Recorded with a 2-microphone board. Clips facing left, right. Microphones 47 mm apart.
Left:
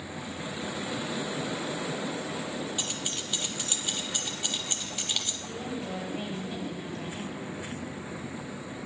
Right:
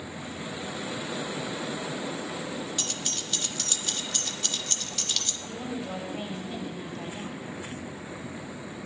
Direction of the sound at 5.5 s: Centre (ahead or behind).